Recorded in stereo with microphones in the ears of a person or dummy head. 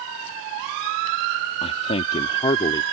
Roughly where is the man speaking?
Left.